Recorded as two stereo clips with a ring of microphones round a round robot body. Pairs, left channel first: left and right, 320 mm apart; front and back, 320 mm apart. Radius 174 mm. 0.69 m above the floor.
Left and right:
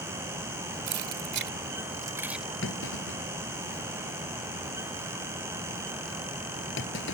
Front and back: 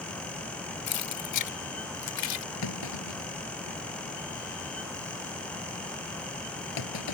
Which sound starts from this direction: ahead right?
Keys jangling, at 0.9 s.